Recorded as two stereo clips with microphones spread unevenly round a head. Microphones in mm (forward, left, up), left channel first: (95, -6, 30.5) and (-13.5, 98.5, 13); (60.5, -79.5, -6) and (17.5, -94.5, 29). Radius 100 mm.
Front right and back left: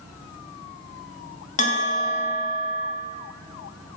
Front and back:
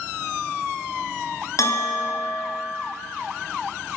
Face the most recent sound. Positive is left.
turn(degrees=-5)